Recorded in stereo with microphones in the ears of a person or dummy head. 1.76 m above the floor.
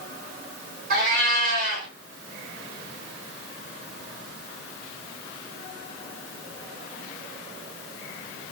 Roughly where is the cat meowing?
Right.